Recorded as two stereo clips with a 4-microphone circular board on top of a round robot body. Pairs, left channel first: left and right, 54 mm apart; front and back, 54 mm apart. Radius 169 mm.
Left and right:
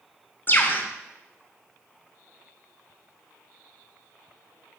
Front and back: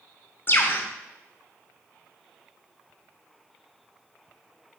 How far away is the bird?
About 1.4 m.